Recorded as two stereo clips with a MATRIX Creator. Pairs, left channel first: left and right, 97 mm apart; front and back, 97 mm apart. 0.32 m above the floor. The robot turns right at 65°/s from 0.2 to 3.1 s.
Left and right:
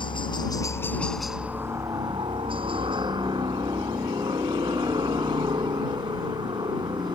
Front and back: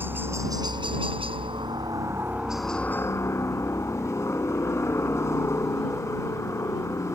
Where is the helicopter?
115° left; by 7.1 s 60° right.